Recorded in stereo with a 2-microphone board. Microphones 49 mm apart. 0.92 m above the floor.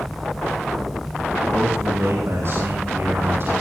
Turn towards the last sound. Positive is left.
turn(degrees=-55)  # may be behind; listen again after turning